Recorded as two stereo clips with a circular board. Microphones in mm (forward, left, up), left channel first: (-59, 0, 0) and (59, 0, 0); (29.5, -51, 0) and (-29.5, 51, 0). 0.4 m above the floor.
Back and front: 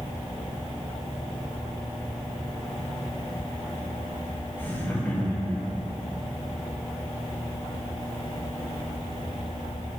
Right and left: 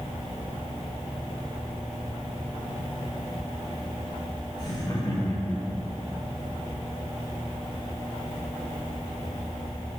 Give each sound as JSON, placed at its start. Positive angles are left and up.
{"t": 4.6, "sound": "laughter", "azimuth_deg": -110, "distance_m": 2.0}